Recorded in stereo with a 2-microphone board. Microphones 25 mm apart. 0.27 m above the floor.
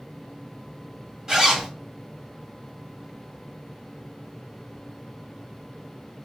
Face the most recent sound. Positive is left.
turn(degrees=-25)  # may be behind; listen again after turning